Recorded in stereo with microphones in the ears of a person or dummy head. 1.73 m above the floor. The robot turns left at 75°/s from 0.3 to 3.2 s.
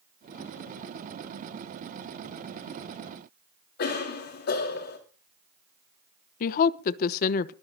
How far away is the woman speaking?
About 1.0 m.